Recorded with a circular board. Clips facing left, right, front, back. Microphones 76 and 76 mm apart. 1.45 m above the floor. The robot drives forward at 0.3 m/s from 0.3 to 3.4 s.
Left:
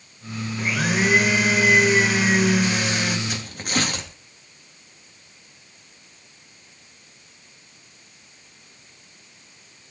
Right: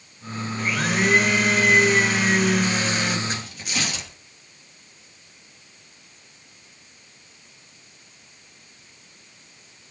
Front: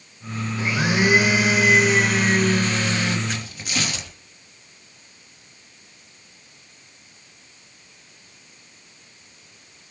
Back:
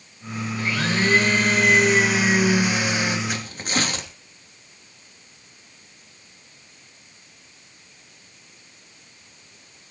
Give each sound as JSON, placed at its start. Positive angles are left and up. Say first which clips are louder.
{"t": 0.6, "sound": "a blender", "louder": "left 1 dB, front 2 dB", "azimuth_deg": 5, "distance_m": 1.2}
{"t": 3.3, "sound": "tearing paper", "louder": "left 2 dB, back 2 dB", "azimuth_deg": 130, "distance_m": 3.0}